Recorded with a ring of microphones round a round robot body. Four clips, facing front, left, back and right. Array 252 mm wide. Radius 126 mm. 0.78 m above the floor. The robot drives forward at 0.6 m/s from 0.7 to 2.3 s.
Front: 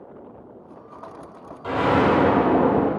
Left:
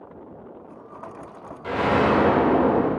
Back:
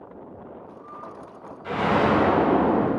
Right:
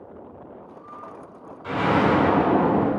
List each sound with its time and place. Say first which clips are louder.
1.6 s an explosion: even, front 2 dB; 30° left, 3 m; by 2.9 s 35° left, 3 m